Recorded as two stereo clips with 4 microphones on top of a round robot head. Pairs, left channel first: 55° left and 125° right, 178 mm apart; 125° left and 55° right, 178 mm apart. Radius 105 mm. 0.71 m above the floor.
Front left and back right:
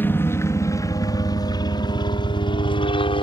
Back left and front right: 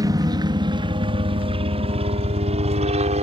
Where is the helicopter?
10° right; by 3.2 s 5° right.